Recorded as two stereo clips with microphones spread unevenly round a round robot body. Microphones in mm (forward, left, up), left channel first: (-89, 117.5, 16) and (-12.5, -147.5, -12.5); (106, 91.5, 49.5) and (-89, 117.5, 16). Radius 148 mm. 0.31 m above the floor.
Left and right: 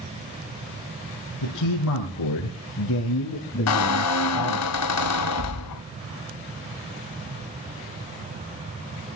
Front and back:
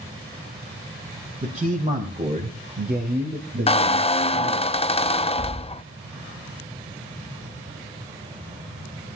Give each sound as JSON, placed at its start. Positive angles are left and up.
{"t": 1.4, "sound": "a man speaking", "azimuth_deg": 120, "distance_m": 3.0}
{"t": 3.7, "sound": "a squeak", "azimuth_deg": 60, "distance_m": 0.6}